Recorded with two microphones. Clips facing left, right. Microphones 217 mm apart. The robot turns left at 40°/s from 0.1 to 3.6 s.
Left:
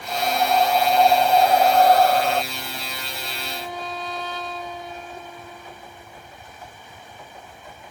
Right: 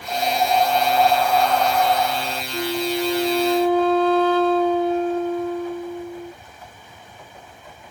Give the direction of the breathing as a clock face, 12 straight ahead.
5 o'clock.